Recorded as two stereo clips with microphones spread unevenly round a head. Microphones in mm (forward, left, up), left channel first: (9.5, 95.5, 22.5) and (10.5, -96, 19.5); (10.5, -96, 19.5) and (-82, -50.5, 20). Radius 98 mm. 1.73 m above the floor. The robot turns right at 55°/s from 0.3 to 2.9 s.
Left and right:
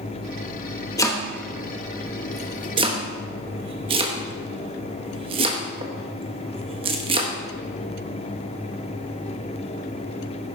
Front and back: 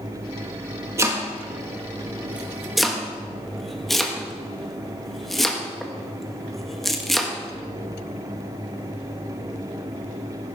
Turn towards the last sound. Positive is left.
turn(degrees=-115)